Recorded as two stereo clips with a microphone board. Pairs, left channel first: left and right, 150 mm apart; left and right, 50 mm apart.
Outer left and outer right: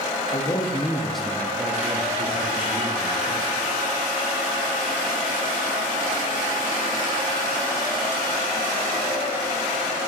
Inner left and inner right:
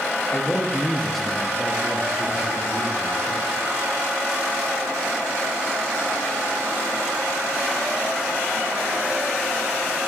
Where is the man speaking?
50° left (ahead or behind), 0.7 m; by 3.4 s 50° right (ahead or behind), 1.7 m.